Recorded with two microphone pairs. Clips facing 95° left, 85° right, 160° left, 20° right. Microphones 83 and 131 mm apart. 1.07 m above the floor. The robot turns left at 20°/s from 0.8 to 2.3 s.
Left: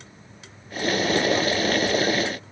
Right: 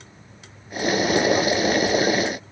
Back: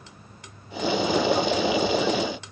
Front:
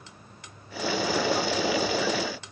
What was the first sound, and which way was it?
Only background noise.